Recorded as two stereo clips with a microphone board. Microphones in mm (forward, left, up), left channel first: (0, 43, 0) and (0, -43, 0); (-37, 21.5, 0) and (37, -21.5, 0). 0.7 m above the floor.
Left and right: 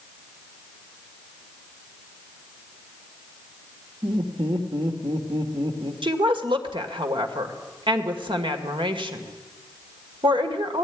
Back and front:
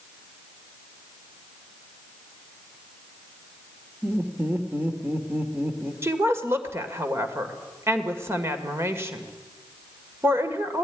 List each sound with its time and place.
4.0 s laughter: 105° right, 2 m
6.0 s a woman speaking: 90° right, 2 m